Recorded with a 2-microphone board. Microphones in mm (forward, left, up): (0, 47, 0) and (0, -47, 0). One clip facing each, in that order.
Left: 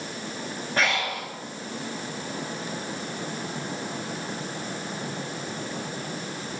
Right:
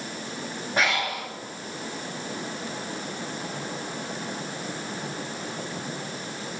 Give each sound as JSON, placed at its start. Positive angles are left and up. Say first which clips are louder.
{"t": 0.8, "sound": "breathing", "louder": "right 1 dB", "side_deg": -15, "distance_m": 5.0}